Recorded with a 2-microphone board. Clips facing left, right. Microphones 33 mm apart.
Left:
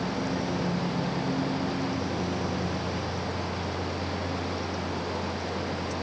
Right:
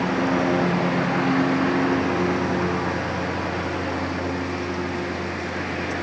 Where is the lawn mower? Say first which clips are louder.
Right 8 dB; 80° right; by 6.0 s 90° right.